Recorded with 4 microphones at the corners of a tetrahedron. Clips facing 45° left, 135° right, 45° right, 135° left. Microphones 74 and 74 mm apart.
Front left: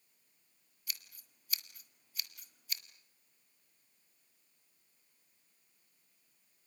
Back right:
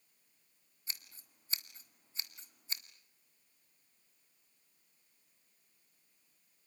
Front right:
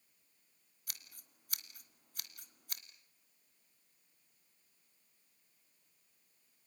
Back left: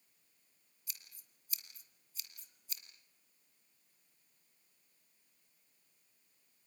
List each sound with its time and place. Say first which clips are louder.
0.9 s scissors: even, front right 2 dB; 75° right, 1.9 m